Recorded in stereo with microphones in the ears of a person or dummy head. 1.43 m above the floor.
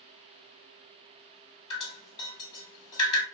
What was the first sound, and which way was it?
Dripping, 25° left (ahead or behind).